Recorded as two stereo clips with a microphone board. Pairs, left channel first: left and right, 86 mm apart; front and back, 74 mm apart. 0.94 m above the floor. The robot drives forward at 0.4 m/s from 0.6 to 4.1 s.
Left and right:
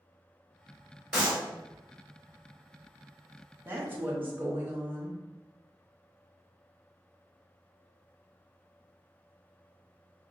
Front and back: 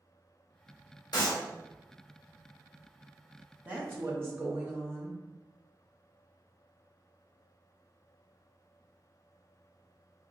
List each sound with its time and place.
1.1 s a clap: 5° right, 1.9 m; by 1.4 s 10° right, 1.8 m
3.6 s a woman speaking: 130° right, 0.9 m; by 5.2 s 140° right, 1.0 m